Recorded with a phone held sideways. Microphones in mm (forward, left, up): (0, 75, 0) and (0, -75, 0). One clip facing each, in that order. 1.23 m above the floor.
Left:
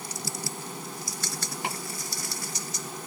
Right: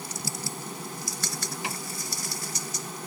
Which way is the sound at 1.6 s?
55° left (ahead or behind).